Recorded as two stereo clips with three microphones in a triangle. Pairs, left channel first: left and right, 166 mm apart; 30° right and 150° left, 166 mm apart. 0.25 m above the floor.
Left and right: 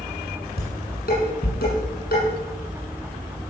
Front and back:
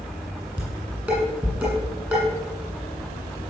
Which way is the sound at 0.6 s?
70° left.